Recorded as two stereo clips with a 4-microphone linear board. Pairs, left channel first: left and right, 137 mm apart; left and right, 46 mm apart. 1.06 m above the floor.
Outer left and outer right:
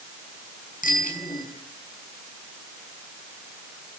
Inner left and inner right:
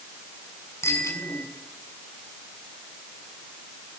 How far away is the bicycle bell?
About 7 m.